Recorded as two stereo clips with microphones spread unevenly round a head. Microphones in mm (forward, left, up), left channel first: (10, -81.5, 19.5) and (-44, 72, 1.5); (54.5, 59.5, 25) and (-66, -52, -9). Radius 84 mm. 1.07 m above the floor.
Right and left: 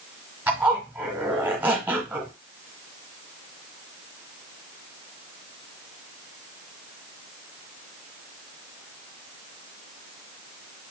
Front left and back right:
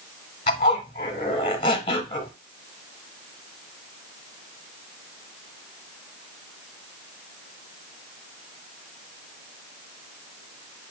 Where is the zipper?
25° left, 1.0 m.